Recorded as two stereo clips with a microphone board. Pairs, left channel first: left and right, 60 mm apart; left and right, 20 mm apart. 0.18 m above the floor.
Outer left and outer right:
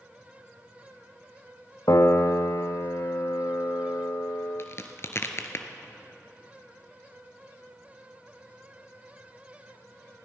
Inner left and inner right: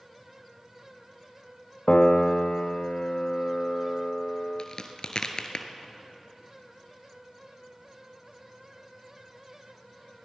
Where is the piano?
75° left (ahead or behind), 0.8 m.